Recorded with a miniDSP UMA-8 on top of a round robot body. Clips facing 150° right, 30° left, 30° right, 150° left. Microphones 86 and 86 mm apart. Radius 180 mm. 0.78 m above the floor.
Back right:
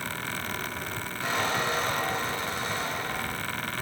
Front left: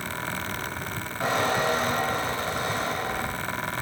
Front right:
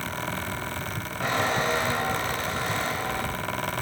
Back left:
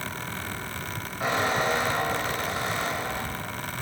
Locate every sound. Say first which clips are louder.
1.2 s a squeak: front left 4 dB, even; 70° left, 0.6 m